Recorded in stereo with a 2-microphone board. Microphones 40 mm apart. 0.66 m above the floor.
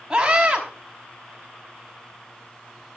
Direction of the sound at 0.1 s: 15° right (ahead or behind).